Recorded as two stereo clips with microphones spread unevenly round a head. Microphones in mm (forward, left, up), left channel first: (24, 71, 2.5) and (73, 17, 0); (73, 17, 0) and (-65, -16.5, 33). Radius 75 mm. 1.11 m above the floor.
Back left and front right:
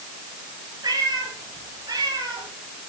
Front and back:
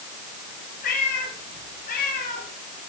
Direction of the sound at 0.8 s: 20° right.